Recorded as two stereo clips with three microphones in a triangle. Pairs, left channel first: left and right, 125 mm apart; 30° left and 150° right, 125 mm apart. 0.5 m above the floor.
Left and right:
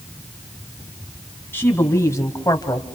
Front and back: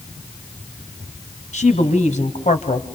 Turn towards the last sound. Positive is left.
turn(degrees=35)